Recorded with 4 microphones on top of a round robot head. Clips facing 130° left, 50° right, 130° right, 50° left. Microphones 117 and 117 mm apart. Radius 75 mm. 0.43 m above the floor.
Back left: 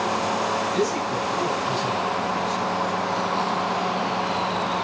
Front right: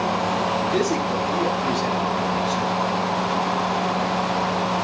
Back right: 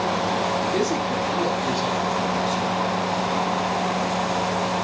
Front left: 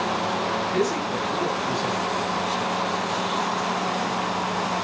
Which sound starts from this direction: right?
A man speaking, at 0.7 s.